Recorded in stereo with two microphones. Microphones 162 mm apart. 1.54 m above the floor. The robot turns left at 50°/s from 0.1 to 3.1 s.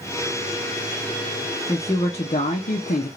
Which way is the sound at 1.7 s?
150° left.